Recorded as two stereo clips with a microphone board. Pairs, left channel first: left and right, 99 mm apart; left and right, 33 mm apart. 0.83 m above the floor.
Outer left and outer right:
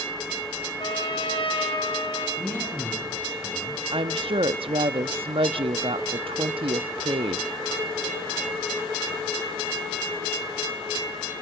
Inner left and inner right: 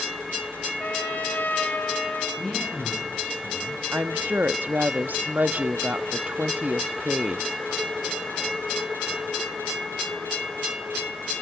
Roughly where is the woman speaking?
Right.